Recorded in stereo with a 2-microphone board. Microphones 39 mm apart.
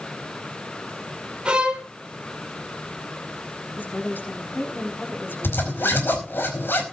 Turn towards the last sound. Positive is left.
turn(degrees=65)  # may be behind; listen again after turning